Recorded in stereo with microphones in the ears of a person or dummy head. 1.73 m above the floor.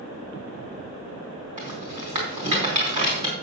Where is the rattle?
35° right (ahead or behind), 4.5 m.